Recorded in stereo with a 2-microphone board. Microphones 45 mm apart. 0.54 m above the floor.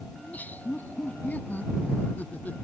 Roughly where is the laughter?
Left.